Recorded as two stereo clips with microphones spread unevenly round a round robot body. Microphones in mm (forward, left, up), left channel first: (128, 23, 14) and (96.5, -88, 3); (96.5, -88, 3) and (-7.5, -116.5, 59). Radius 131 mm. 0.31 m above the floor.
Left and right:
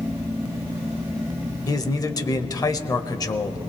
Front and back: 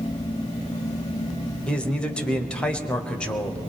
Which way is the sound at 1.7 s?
35° left.